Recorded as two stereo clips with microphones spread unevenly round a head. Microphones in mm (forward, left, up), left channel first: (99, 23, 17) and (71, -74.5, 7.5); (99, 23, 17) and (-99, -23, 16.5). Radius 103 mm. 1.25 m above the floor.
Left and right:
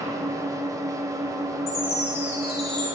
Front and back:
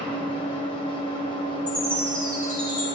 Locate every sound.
0.0 s an engine running: 50° right, 1.8 m
1.7 s a chime: 95° left, 5.5 m